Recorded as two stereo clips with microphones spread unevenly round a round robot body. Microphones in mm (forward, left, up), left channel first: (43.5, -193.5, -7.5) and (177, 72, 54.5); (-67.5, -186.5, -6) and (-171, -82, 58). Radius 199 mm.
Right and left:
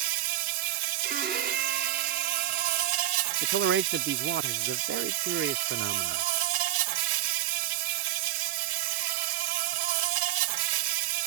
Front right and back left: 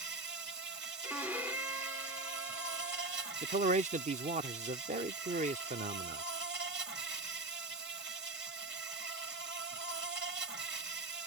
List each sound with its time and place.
0.0 s an insect: 85° left
1.0 s a violin: 15° left
3.4 s a man speaking: 95° left